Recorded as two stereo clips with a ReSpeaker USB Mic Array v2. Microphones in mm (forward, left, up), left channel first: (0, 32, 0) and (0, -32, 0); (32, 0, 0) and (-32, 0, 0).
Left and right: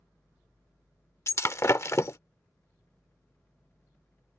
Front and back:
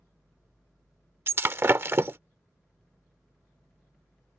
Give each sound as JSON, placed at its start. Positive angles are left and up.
{"t": 1.3, "sound": "breaking glass", "azimuth_deg": 130}